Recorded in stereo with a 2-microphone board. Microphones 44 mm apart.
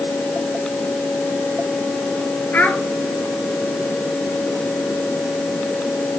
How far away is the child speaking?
About 1.6 m.